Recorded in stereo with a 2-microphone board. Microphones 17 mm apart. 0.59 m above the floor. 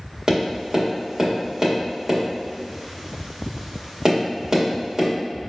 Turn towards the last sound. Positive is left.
turn(degrees=-40)  # may be behind; listen again after turning